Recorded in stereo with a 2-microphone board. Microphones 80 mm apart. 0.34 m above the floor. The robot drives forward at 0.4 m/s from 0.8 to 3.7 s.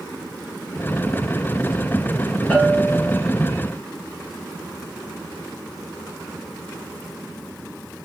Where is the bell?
15° left (ahead or behind), 2.5 m; by 3.2 s 10° left (ahead or behind), 3 m.